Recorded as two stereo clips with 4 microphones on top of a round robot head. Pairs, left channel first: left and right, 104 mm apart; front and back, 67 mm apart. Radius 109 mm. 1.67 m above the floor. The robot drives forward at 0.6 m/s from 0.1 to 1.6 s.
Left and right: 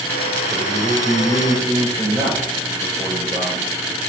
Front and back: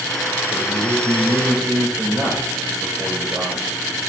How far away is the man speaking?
About 8 m.